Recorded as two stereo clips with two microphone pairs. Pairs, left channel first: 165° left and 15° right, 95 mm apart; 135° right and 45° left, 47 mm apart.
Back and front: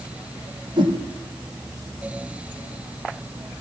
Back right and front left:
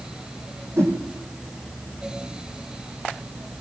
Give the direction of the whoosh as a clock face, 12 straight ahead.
11 o'clock.